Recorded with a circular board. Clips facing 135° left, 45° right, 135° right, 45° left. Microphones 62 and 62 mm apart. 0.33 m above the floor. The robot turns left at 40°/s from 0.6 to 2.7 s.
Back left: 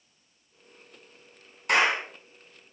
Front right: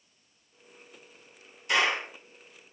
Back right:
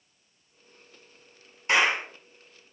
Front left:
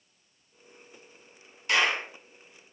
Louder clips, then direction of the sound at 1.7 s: Back left 3 dB, back right 2 dB; 160° left.